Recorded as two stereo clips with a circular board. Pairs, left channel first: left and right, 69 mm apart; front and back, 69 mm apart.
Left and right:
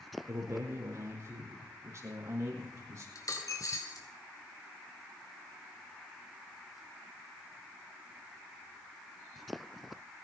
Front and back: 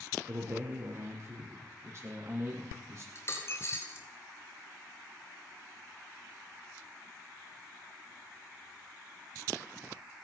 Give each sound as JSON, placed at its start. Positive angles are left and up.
{"t": 0.3, "sound": "a man speaking", "azimuth_deg": -135, "distance_m": 4.5}
{"t": 3.1, "sound": "a dropped coin", "azimuth_deg": 50, "distance_m": 3.5}